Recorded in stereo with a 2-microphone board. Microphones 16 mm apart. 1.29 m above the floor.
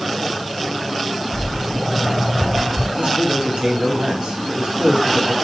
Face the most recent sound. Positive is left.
turn(degrees=-80)